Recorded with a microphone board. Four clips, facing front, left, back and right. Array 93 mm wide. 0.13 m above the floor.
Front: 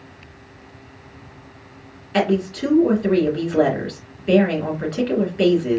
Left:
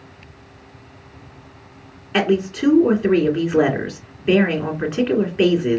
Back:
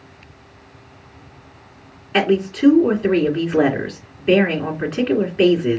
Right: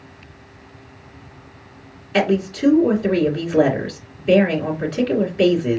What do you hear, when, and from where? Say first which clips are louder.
2.1 s a woman speaking: even, back 2 dB; 125° left, 1.8 m